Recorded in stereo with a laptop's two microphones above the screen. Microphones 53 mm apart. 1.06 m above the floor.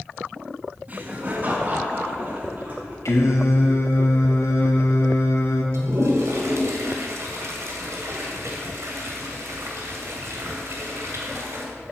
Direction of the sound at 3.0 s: 75° left (ahead or behind).